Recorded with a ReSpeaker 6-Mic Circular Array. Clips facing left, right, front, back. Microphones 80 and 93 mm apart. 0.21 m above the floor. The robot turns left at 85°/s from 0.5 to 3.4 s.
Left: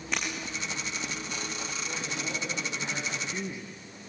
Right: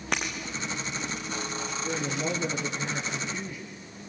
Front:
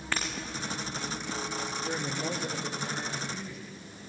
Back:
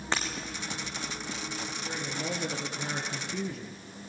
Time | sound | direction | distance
0.1 | breaking glass | 110° right | 5.5 m
1.8 | a woman speaking | 70° right | 4 m